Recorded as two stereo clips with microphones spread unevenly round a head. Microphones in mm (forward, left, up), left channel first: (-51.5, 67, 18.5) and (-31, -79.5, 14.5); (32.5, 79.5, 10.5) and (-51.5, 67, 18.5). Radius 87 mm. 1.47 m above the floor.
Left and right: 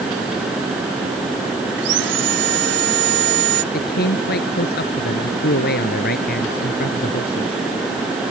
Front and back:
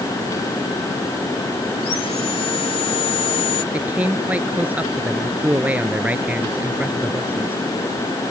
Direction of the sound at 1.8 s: 50° right.